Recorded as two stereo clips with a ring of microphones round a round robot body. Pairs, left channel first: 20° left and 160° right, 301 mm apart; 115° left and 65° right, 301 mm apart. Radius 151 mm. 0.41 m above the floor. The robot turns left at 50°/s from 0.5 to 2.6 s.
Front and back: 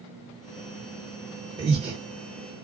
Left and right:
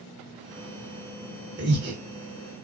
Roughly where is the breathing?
Right.